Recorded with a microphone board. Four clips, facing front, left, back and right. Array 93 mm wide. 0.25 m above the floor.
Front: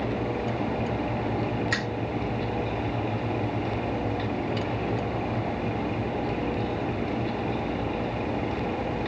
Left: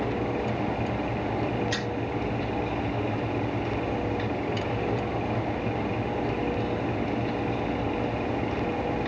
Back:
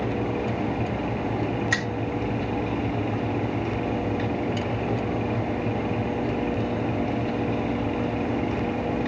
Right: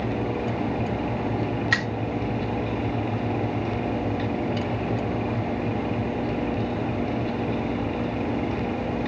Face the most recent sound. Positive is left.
turn(degrees=-110)